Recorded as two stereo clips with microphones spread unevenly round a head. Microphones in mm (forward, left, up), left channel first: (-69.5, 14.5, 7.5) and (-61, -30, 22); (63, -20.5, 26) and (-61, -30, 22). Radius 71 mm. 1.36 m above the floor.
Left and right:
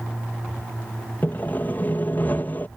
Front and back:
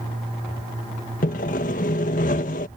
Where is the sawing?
35° left.